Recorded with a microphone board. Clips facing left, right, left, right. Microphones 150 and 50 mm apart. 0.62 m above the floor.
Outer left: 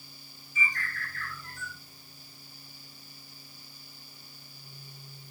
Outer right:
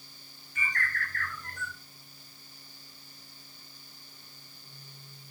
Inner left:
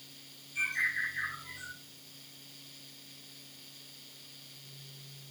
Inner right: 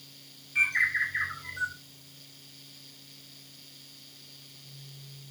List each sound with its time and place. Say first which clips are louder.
0.6 s a bird: outer right 1 dB, inner right 6 dB; 75° right (ahead or behind), 3.5 m